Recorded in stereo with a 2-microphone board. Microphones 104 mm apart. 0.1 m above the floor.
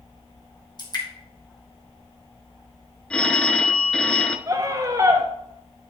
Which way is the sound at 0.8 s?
45° left (ahead or behind).